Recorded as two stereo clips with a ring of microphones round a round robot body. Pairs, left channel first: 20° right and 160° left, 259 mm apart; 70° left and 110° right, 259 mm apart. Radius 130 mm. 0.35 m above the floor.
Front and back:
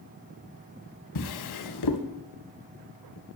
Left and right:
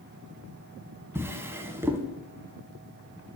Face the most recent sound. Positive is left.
turn(degrees=-30)